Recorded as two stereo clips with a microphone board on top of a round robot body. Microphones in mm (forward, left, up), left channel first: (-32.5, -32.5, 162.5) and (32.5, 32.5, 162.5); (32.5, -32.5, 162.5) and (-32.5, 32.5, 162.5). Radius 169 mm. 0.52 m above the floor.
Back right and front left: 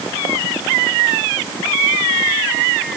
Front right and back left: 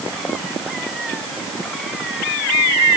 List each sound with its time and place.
Only background noise.